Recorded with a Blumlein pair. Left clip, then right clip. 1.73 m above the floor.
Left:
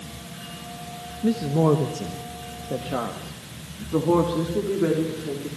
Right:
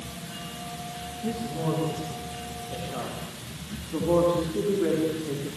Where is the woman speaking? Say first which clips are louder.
Left 10 dB; 25° left, 1.7 m; by 5.5 s 80° left, 4 m.